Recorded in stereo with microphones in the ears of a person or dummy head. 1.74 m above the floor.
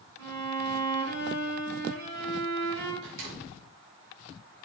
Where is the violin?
80° right, 7 m.